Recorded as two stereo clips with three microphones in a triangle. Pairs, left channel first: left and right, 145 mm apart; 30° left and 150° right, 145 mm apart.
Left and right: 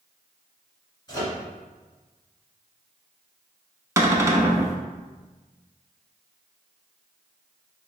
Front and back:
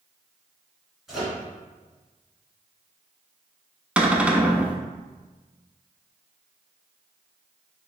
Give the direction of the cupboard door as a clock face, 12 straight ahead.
3 o'clock.